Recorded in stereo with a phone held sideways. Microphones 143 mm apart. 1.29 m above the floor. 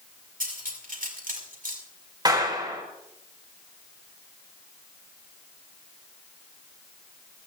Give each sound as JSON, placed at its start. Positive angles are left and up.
{"t": 0.4, "sound": "cutlery clinking", "side_deg": -80, "distance_m": 5.0}
{"t": 2.2, "sound": "a clap", "side_deg": -30, "distance_m": 4.0}